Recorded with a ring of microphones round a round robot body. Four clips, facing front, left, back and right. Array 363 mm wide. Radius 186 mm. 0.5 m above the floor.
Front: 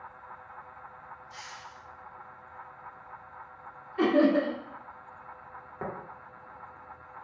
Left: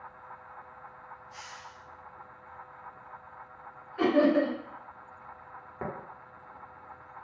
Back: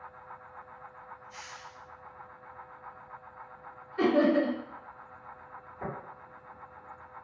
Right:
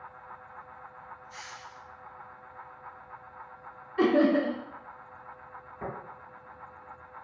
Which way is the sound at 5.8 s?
45° left.